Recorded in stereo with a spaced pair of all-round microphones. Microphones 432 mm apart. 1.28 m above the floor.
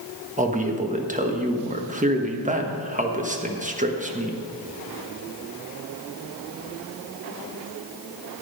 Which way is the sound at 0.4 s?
15° right (ahead or behind).